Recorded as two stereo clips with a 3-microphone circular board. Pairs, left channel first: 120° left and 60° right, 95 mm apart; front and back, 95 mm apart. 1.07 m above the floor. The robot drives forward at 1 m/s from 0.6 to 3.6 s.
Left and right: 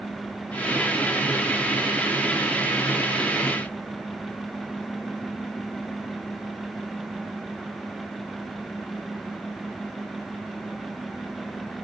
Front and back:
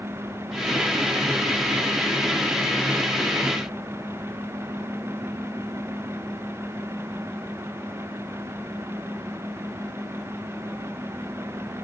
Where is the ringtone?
I don't hear a ringtone.